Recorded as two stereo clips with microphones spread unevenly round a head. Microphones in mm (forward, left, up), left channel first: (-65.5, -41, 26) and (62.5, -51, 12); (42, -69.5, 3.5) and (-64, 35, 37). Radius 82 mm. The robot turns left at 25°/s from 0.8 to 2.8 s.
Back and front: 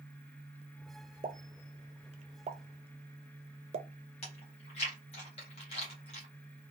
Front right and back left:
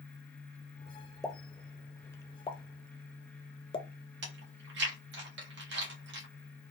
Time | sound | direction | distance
1.2 | a pop | 35° left | 0.6 m
4.2 | chewing | 125° left | 1.4 m